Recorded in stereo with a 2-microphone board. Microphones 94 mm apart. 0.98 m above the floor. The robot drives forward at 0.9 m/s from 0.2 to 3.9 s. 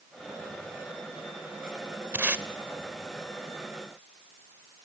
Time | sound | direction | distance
2.1 | tape being pulled | 20° right (ahead or behind) | 0.7 m